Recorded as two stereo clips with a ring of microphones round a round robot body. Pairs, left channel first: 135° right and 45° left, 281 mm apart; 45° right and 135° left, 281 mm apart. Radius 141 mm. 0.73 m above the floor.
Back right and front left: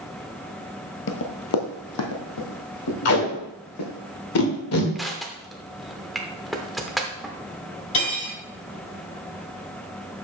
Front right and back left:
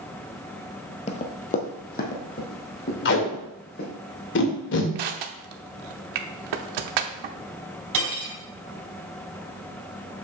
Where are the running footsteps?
105° right, 0.9 m.